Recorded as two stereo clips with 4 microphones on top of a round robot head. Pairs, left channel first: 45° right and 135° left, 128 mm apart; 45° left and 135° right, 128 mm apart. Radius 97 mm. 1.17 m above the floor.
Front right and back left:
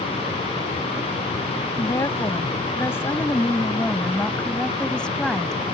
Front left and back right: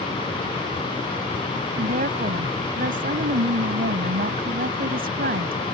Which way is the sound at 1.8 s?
115° right.